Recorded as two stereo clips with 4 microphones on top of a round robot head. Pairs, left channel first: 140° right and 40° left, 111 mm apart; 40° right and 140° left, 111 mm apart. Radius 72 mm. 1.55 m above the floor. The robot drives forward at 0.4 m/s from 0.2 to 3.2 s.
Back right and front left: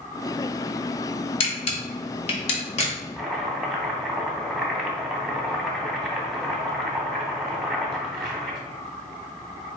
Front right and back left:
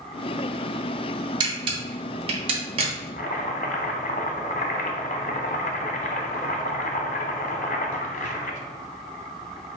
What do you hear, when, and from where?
1.4 s a camera shutter: 170° right, 0.6 m; by 2.9 s 175° right, 1.1 m
3.2 s chopping: 50° right, 0.5 m